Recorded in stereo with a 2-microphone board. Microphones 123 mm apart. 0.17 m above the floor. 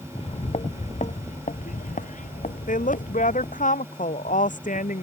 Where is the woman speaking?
80° left.